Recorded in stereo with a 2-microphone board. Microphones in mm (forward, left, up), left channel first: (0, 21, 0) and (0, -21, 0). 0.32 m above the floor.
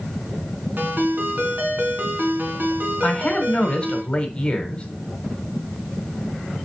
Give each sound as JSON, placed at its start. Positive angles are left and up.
{"t": 0.8, "sound": "a ringtone", "side_deg": -55, "distance_m": 2.0}
{"t": 3.0, "sound": "a man speaking", "side_deg": 25, "distance_m": 1.5}